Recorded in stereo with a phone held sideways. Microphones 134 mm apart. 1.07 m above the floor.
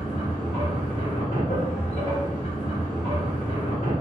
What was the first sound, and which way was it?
A machine running, 60° left (ahead or behind).